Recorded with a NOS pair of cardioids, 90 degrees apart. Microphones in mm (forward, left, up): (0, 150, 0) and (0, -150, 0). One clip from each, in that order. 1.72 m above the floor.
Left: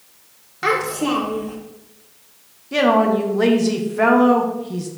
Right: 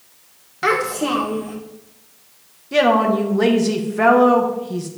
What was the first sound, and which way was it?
A child speaking, 5° right.